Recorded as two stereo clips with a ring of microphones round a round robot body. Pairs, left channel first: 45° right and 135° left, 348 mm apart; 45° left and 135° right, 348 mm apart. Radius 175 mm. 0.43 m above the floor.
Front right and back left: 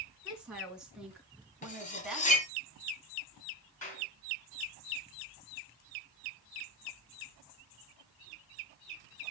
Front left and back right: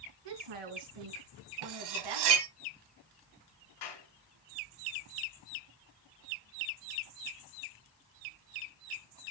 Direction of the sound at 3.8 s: 25° left.